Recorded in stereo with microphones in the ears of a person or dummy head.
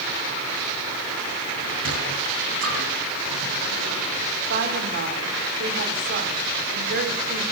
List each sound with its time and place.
1.6 s a sliding door: 80° right, 6 m
4.5 s a woman speaking: 60° right (ahead or behind), 4.5 m